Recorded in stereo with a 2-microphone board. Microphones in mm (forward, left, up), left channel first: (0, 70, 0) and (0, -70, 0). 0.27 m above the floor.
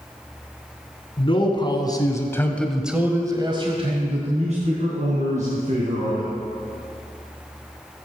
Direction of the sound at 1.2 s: 40° left (ahead or behind).